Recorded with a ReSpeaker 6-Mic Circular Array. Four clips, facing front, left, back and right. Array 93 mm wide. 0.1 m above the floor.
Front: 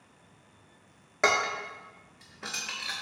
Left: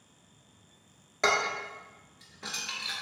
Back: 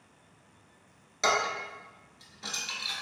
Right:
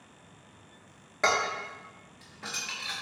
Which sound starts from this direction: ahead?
Dishes clattering, at 1.2 s.